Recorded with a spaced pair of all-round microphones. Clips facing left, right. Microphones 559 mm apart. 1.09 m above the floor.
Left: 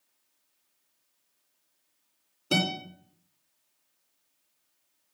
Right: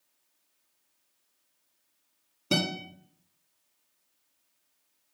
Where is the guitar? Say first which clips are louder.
Even; 25° right (ahead or behind), 2 m.